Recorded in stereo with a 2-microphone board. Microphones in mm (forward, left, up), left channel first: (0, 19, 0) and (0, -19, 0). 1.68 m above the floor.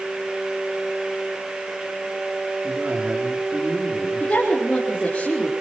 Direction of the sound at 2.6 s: 25° right (ahead or behind).